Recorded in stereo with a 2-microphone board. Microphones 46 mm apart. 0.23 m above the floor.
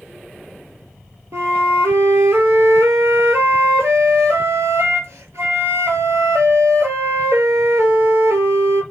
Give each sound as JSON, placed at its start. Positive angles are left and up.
{"t": 1.3, "sound": "a flute", "side_deg": -80, "distance_m": 1.0}